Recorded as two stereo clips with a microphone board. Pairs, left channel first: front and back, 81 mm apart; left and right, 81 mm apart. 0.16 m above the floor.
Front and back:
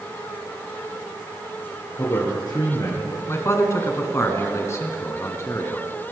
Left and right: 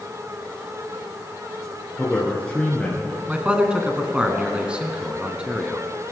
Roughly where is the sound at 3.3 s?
Ahead.